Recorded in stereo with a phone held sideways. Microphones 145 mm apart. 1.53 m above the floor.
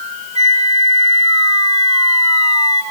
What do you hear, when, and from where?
0.3 s a flute: 50° right (ahead or behind), 2 m